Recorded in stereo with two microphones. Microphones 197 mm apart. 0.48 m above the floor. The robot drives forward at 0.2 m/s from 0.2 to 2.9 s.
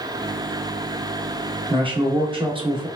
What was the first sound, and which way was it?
A man speaking, 25° right (ahead or behind).